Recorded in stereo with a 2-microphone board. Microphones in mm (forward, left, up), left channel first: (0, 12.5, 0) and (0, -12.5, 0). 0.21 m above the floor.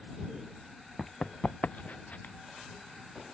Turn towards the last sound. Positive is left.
turn(degrees=85)